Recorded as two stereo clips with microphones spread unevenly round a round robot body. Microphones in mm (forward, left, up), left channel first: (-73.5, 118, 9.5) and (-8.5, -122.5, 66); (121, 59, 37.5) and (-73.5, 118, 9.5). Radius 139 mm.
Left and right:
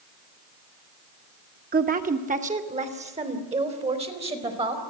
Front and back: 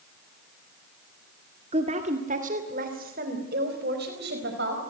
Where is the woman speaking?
135° right, 1.9 m; by 4.8 s 145° right, 5 m.